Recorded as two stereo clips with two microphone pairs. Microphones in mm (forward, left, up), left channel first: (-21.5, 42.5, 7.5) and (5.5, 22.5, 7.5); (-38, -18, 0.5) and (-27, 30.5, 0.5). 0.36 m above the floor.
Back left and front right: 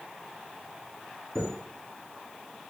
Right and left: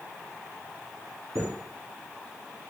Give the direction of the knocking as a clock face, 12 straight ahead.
I don't hear knocking.